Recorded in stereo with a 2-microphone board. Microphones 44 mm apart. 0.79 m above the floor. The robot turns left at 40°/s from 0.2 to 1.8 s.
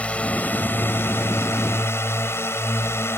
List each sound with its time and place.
0.0 s a drone: 145° left; by 3.2 s 80° left